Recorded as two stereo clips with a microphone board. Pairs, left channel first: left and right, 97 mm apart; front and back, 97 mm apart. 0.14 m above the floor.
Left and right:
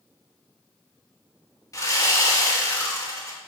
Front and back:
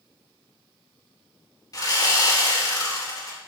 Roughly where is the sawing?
Ahead left.